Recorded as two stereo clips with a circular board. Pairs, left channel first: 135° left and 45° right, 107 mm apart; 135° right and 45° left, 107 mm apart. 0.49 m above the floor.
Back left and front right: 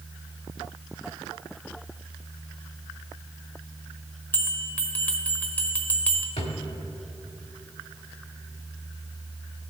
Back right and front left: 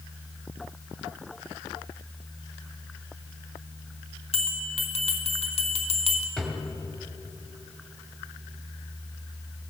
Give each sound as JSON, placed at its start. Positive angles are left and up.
{"t": 4.3, "sound": "a bell", "azimuth_deg": -150, "distance_m": 0.9}
{"t": 6.4, "sound": "a drawer", "azimuth_deg": 140, "distance_m": 1.2}